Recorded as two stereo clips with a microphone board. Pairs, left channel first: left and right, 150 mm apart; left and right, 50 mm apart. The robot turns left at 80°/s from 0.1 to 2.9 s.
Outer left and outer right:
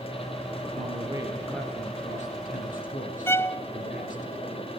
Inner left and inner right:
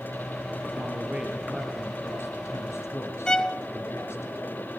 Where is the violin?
15° left (ahead or behind), 0.6 m.